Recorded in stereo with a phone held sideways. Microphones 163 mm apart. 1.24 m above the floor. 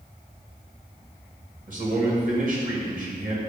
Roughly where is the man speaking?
Right.